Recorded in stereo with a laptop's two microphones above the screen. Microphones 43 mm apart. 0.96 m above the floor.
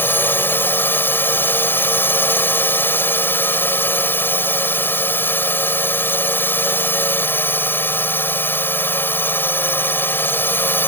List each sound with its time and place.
0.0 s a drone: 60° left (ahead or behind)